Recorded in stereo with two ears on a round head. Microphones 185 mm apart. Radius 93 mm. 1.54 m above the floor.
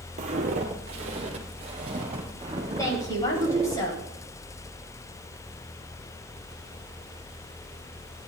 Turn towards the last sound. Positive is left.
turn(degrees=15)  # may be behind; listen again after turning